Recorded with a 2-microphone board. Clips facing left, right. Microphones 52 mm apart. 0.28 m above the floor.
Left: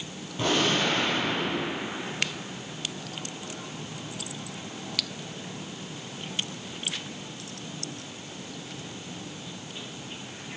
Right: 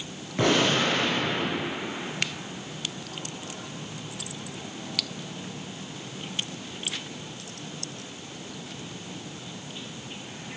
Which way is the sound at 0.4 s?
75° right (ahead or behind).